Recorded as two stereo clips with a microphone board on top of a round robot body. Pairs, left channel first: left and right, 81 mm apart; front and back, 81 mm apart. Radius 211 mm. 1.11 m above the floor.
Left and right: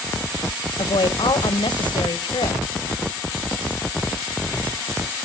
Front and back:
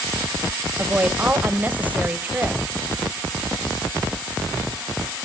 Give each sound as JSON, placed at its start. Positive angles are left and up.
{"t": 0.8, "sound": "a woman speaking", "azimuth_deg": 110, "distance_m": 1.5}